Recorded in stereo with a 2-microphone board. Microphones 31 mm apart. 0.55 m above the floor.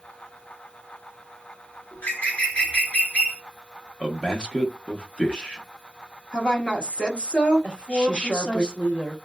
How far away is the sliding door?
No sliding door in this recording.